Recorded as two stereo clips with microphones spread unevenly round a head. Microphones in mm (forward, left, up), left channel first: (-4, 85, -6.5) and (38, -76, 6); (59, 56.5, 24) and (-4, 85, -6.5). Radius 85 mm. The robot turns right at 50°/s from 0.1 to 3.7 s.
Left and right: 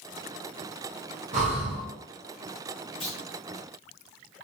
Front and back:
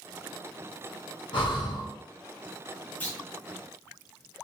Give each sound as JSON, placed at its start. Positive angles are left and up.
{"t": 1.3, "sound": "breathing", "azimuth_deg": -35, "distance_m": 1.0}
{"t": 3.0, "sound": "a clunk", "azimuth_deg": 50, "distance_m": 1.4}